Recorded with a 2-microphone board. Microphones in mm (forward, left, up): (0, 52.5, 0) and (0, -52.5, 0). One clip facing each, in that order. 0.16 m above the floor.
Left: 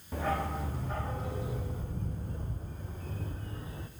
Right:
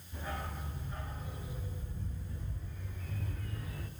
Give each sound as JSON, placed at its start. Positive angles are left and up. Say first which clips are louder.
{"t": 0.1, "sound": "a dog barking", "louder": "left 10 dB", "side_deg": 85, "distance_m": 3.0}